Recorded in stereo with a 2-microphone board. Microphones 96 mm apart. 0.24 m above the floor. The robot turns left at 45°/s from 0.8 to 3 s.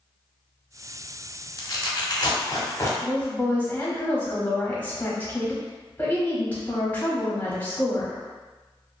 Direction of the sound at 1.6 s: 40° left (ahead or behind).